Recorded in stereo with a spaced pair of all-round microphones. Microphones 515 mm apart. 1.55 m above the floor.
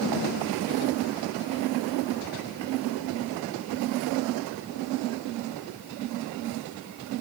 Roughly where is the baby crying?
No baby crying in this recording.